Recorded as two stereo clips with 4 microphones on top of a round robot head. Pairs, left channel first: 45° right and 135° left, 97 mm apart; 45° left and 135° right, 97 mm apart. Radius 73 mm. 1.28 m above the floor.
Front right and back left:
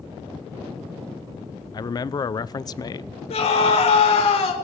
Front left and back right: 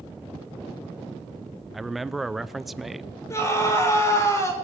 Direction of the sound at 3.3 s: 20° right.